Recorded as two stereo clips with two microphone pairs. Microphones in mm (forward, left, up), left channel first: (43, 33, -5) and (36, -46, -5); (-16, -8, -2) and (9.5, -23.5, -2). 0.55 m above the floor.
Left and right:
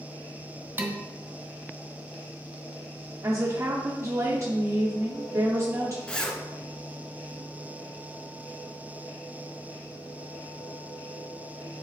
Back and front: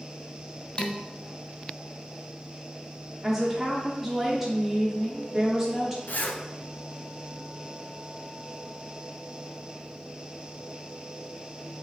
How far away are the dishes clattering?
About 1.1 m.